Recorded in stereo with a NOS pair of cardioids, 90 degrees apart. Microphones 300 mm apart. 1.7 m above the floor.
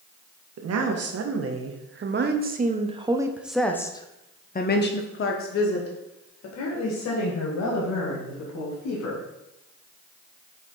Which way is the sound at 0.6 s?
60° right.